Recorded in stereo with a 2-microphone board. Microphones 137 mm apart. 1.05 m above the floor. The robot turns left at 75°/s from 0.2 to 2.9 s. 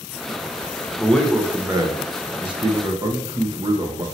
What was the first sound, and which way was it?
A man speaking, 20° left.